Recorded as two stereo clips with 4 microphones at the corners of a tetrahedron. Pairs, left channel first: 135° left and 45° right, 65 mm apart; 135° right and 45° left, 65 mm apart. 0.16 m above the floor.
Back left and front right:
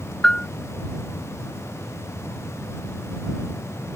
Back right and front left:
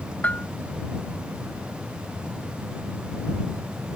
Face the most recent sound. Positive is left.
turn(degrees=-165)